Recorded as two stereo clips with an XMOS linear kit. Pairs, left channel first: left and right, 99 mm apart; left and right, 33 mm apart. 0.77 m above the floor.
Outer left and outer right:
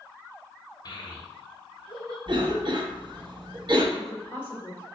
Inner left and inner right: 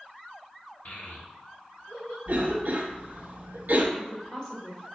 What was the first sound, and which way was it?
A child speaking, 40° left (ahead or behind).